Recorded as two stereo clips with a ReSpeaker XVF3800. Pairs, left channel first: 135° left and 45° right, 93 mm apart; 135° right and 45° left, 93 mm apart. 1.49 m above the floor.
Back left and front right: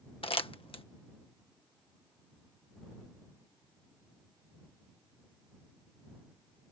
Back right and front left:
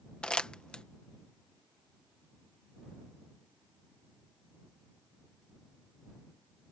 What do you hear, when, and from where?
0.2 s crumpling: 145° left